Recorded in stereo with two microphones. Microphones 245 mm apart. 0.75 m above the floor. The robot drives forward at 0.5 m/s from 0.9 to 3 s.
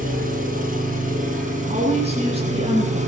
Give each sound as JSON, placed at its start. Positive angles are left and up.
{"t": 0.0, "sound": "an engine running", "side_deg": -35, "distance_m": 6.0}
{"t": 1.7, "sound": "a woman speaking", "side_deg": -25, "distance_m": 10.0}